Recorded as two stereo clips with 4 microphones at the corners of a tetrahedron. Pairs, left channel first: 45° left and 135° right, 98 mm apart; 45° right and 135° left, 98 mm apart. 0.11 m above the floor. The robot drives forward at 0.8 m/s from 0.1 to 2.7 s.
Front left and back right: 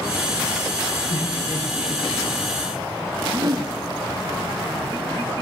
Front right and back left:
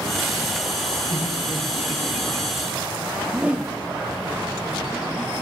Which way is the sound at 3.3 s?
155° right.